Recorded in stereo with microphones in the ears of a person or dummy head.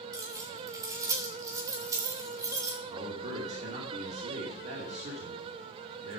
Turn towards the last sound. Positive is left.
turn(degrees=-40)  # may be behind; listen again after turning